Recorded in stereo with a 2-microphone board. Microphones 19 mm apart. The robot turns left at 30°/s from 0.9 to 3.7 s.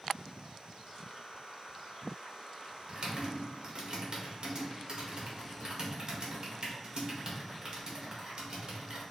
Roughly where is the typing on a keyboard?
Right.